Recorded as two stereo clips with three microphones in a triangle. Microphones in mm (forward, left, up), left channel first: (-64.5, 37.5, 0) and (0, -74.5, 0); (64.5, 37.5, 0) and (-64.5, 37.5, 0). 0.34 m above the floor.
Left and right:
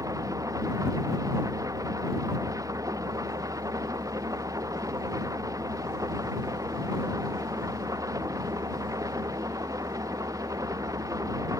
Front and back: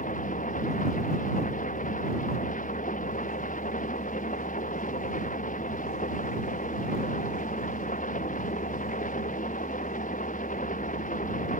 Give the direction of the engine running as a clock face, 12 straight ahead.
12 o'clock.